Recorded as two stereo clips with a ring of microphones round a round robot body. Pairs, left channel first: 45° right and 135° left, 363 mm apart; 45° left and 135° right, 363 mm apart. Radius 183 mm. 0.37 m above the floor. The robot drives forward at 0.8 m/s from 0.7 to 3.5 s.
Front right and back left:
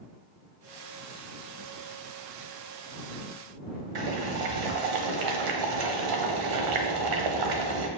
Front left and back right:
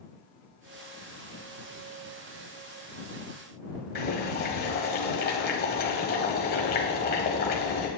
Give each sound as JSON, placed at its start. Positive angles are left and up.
{"t": 4.0, "sound": "boiling", "azimuth_deg": 110, "distance_m": 1.1}